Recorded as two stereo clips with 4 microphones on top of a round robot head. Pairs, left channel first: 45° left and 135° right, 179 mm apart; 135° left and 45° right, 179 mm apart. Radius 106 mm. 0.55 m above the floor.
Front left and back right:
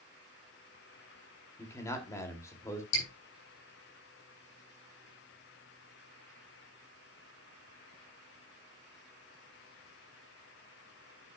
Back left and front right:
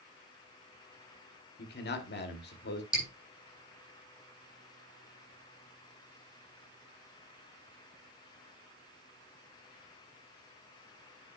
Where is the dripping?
40° left, 7.5 m.